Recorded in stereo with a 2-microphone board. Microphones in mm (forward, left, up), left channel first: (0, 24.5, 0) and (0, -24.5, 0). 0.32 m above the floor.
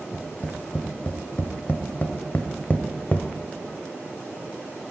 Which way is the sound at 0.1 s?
30° left (ahead or behind).